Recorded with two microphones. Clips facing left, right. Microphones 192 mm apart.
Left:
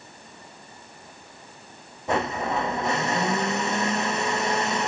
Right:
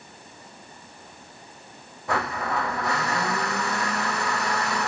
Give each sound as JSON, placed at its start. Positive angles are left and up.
{"t": 2.1, "sound": "a blender", "side_deg": 20, "distance_m": 0.6}